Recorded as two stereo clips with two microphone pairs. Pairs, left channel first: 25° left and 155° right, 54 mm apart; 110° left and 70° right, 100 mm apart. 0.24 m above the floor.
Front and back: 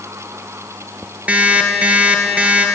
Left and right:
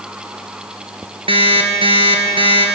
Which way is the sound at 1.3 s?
95° right.